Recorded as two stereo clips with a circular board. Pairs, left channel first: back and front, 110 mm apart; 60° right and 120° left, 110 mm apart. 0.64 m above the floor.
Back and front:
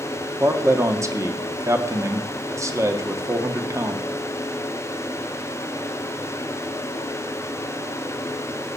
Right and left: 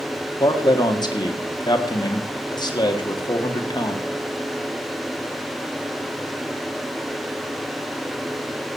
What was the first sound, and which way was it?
A man speaking, 45° right.